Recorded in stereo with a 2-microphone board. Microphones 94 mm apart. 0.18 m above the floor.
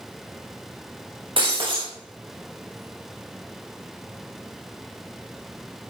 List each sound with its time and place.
1.4 s breaking glass: 65° right (ahead or behind), 5 m